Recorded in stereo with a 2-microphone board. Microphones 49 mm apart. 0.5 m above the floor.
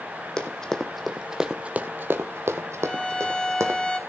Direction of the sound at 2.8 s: 15° left (ahead or behind).